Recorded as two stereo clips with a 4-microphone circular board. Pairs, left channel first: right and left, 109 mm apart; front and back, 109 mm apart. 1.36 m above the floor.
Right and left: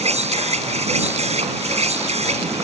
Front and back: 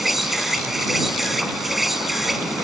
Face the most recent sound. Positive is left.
turn(degrees=95)